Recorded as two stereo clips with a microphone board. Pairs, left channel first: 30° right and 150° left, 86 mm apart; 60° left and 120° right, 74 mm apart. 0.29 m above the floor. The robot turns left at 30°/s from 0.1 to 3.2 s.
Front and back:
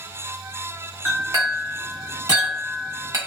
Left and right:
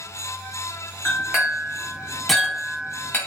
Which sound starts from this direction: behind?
A clink, at 1.1 s.